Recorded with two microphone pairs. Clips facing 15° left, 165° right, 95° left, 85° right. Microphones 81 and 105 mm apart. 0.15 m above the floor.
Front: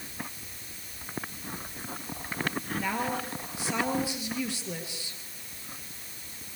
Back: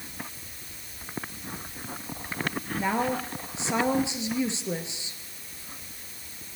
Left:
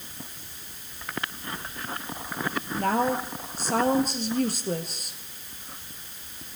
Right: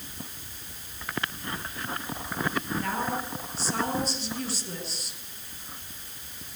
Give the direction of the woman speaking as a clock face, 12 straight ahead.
8 o'clock.